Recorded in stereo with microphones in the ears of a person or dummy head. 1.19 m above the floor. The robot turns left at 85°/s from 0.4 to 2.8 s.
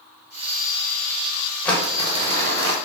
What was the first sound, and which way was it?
Crumpling, 10° left.